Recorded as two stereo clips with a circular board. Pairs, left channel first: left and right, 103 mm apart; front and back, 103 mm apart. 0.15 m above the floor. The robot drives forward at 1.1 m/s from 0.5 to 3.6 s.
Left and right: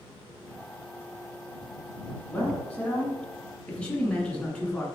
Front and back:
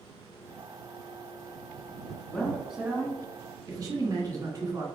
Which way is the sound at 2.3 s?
45° left.